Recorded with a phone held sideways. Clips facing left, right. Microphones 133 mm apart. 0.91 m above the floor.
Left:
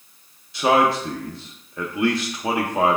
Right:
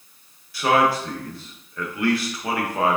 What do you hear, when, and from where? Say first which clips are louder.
0.5 s a man speaking: left 1 dB; 20° left (ahead or behind), 0.6 m